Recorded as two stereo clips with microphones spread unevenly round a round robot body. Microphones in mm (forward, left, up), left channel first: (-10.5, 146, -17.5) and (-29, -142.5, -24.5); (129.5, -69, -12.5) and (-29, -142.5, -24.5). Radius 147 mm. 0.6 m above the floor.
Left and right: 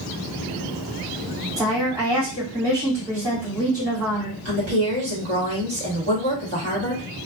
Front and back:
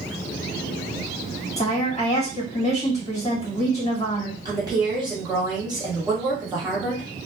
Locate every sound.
1.6 s a woman speaking: 20° right, 1.7 m
4.5 s a woman speaking: 100° right, 1.6 m